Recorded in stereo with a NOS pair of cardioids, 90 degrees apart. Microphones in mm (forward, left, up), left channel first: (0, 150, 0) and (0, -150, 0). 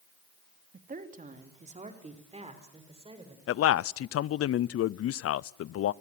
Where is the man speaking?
50° left, 0.6 m.